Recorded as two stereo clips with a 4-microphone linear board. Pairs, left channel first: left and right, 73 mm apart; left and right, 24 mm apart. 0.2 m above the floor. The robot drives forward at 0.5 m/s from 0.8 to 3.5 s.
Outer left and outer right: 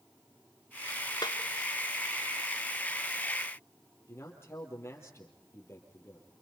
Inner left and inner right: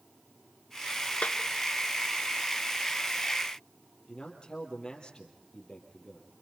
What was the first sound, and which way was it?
A snare drum, 70° left (ahead or behind).